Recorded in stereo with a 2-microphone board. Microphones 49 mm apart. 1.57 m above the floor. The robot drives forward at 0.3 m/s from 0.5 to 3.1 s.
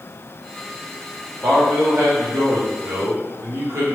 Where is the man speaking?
55° right (ahead or behind), 1.3 m; by 4.0 s 80° right, 1.1 m.